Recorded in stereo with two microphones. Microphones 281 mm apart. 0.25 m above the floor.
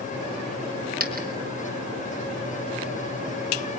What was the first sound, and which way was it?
A dropped coin, 30° right (ahead or behind).